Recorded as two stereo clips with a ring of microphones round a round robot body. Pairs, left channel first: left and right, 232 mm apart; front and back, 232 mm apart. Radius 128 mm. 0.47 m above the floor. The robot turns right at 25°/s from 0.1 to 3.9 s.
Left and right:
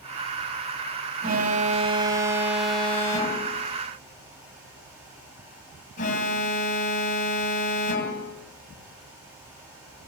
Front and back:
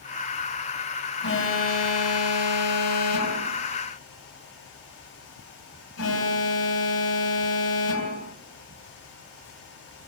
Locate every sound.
1.2 s an alarm: 35° right, 3 m; by 8.3 s 30° left, 3 m